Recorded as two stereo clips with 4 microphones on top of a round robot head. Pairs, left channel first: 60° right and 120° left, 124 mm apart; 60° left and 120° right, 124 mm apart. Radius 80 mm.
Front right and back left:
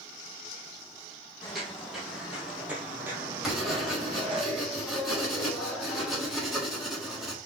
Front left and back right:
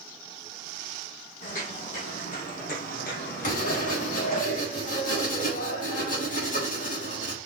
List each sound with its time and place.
1.4 s footsteps: 30° left, 3.5 m; by 4.4 s 85° left, 1.9 m
3.4 s writing: 35° left, 4 m